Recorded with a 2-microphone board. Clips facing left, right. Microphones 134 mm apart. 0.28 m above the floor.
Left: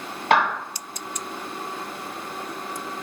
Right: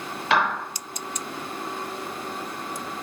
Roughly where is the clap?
Left.